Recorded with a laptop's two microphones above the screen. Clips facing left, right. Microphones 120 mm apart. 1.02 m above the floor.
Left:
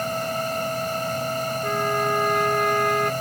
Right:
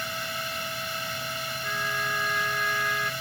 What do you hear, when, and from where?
0.0 s a fan: 45° left (ahead or behind)
1.6 s a trumpet: 55° left (ahead or behind)